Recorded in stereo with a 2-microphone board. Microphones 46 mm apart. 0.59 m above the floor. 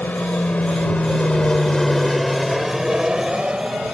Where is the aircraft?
45° left (ahead or behind); by 3.9 s 25° right (ahead or behind).